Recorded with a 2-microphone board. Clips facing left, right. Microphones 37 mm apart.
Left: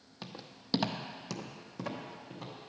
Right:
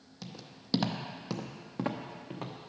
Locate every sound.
0.2 s footsteps: 30° left (ahead or behind), 0.7 m; by 2.7 s 55° right (ahead or behind), 1.2 m